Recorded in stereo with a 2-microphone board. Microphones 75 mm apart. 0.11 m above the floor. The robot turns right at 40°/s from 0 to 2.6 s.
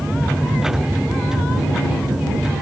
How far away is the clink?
I don't hear a clink.